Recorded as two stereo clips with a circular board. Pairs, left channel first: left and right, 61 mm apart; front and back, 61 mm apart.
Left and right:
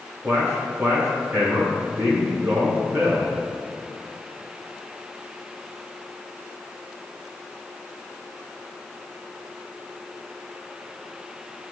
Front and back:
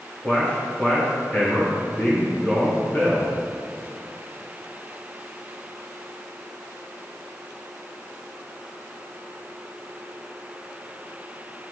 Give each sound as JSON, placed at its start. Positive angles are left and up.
{"t": 0.2, "sound": "a man speaking", "azimuth_deg": -55, "distance_m": 2.0}